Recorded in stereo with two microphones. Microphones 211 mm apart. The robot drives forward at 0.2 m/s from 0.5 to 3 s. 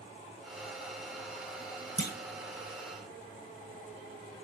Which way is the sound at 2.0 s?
50° left (ahead or behind).